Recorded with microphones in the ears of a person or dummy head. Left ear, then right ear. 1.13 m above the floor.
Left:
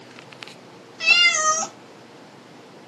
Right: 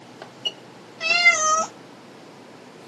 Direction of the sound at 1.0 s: 60° left (ahead or behind).